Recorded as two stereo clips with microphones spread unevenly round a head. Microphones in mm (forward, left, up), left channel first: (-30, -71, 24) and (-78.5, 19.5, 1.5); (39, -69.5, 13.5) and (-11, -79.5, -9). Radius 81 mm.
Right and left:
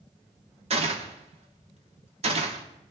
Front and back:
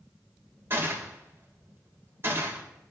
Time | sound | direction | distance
0.7 | a gunshot | 130° left | 1.9 m